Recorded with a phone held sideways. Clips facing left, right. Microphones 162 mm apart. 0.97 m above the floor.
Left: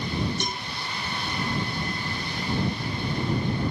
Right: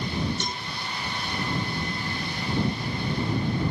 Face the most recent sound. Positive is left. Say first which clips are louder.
# left 1 dB
turn(degrees=15)  # may be behind; listen again after turning